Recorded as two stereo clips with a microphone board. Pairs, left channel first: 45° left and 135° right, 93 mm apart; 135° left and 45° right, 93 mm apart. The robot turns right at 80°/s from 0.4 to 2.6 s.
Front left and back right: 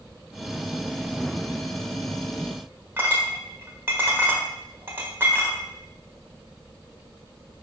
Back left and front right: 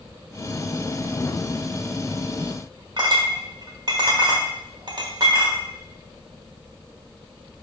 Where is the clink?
75° right, 1.4 m.